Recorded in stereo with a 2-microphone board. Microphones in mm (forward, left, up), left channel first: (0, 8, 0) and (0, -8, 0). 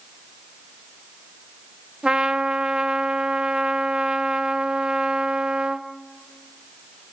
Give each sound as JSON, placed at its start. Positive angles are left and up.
{"t": 2.0, "sound": "a trumpet", "side_deg": -70, "distance_m": 1.8}